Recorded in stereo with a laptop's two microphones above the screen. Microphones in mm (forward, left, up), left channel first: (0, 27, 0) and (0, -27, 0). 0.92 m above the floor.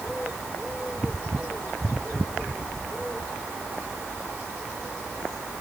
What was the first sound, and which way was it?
Only background noise.